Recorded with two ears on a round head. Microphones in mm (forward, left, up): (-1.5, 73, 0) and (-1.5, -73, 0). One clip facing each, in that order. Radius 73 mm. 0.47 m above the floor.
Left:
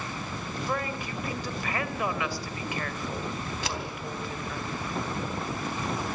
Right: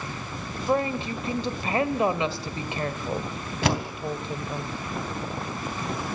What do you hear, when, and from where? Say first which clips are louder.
0.7 s a woman speaking: right 9 dB; 25° right (ahead or behind), 1.9 m
3.6 s a door slam: right 12 dB; 50° right (ahead or behind), 3 m